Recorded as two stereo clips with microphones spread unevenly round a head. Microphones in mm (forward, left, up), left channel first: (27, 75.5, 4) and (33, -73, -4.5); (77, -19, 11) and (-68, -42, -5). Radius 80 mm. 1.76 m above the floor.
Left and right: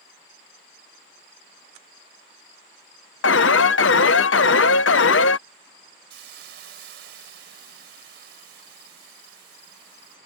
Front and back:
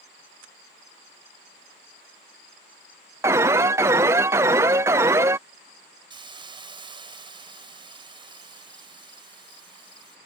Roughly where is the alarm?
Behind left.